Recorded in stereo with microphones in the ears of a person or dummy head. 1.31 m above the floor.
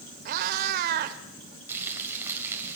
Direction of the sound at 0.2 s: 55° right (ahead or behind).